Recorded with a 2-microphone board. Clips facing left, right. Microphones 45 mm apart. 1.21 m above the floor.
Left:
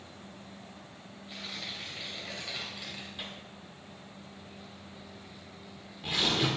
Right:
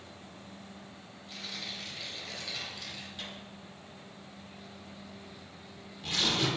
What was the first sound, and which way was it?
Tearing paper, 20° left (ahead or behind).